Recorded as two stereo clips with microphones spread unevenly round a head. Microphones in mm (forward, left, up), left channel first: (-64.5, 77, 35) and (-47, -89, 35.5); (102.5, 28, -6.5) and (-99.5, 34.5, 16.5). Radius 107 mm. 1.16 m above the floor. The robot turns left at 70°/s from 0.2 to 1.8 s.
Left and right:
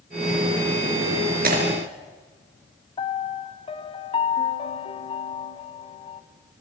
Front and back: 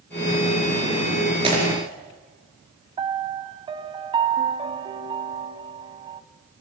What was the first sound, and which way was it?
Breaking glass, 115° right.